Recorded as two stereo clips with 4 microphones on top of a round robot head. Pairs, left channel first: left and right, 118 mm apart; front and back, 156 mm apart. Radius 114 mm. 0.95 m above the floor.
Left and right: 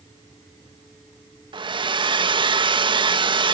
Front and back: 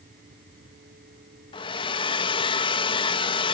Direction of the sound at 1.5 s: 55° right.